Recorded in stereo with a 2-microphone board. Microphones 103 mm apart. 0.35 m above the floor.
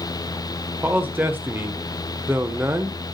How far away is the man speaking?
About 0.8 m.